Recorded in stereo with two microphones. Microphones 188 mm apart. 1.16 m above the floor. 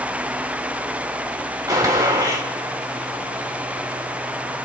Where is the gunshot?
20° right (ahead or behind), 3.5 m.